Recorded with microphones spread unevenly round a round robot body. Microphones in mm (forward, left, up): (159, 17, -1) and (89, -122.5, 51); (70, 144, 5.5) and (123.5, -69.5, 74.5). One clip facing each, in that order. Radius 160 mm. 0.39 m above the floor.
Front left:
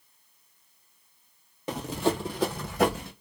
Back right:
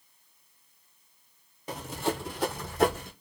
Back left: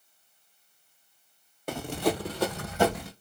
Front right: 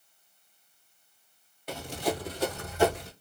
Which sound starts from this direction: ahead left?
Running footsteps, at 1.7 s.